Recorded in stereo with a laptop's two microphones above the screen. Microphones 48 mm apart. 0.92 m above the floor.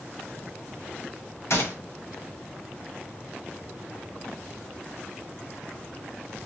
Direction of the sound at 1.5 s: 70° left (ahead or behind).